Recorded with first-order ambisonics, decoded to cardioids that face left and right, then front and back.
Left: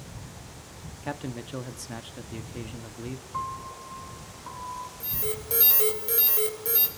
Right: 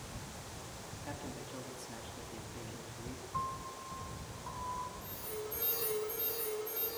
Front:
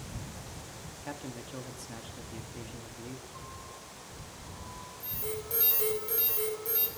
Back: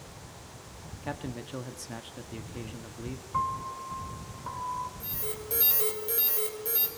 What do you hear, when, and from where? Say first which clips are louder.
1.0 s a man speaking: left 11 dB, back 5 dB; 115° left, 1.0 m
3.3 s a piano: left 5 dB, back 15 dB; 165° left, 0.8 m
5.0 s an alarm: left 8 dB, even; 100° left, 4.5 m